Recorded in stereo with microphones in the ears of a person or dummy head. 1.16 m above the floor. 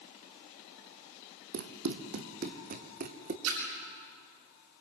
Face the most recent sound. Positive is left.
turn(degrees=-85)